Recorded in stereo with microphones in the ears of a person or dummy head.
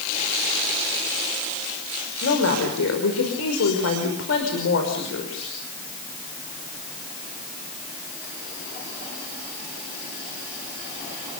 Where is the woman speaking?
80° left, 5.5 m.